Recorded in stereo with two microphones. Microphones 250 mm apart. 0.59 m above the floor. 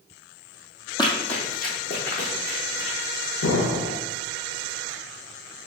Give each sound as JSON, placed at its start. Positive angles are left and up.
{"t": 1.0, "sound": "running footsteps", "side_deg": 15, "distance_m": 0.9}
{"t": 3.4, "sound": "an explosion", "side_deg": 80, "distance_m": 0.5}